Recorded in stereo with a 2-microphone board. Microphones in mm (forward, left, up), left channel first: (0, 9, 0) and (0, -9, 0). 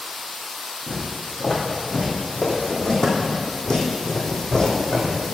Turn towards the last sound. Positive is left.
turn(degrees=50)  # may be behind; listen again after turning